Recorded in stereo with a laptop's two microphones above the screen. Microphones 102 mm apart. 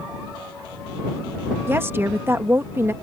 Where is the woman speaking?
25° right (ahead or behind).